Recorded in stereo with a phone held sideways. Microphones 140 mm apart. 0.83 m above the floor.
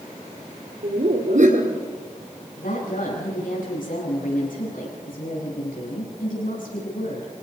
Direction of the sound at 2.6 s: 75° left (ahead or behind).